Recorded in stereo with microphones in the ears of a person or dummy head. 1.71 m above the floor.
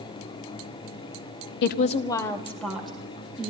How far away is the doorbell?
No doorbell in this recording.